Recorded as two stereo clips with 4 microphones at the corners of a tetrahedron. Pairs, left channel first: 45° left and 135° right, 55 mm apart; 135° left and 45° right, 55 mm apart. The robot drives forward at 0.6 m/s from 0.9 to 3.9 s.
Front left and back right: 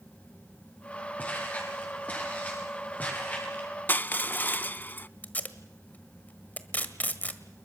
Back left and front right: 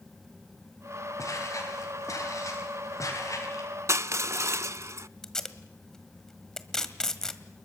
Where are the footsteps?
110° left, 9 m.